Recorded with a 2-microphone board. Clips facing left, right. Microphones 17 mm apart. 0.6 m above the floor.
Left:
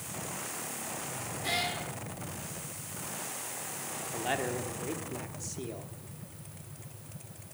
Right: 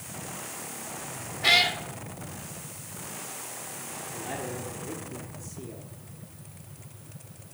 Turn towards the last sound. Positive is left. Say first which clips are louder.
# left 4 dB
turn(degrees=35)  # may be behind; listen again after turning